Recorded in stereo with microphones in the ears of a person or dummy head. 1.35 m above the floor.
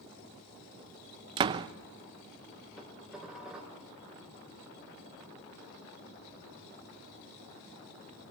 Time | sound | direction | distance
1.4 | a door slam | 20° right (ahead or behind) | 0.6 m
2.8 | dishes clattering | 5° right (ahead or behind) | 4 m